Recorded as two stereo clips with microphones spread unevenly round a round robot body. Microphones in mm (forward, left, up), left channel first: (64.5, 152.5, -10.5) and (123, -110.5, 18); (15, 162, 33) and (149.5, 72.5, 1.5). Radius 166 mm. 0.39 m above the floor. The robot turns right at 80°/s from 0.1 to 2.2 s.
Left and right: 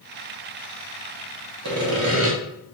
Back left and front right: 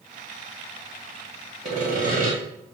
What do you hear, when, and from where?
1.6 s sawing: 90° right, 1.6 m; by 2.3 s 45° right, 1.6 m